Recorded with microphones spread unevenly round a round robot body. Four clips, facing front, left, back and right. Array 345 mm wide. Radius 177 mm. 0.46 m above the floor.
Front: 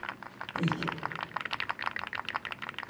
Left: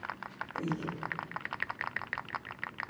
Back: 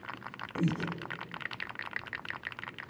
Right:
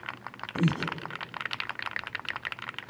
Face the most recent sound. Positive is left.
turn(degrees=-90)